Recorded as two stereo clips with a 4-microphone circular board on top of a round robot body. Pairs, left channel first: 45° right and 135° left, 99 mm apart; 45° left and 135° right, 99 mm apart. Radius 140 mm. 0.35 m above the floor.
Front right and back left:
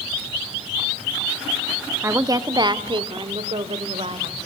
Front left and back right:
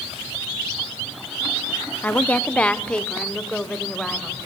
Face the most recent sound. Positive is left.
turn(degrees=130)